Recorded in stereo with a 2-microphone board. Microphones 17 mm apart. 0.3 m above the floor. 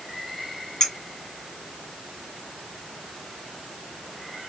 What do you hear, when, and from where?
0.8 s a clink: 50° left (ahead or behind), 2 m